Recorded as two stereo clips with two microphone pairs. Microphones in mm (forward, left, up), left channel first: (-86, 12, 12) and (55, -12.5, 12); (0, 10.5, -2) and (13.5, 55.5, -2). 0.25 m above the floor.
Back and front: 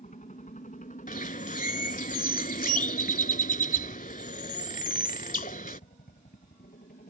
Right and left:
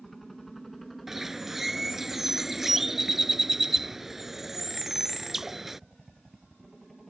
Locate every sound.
0.0 s a helicopter: 170° left; by 7.1 s 165° left
1.1 s a bird: 155° left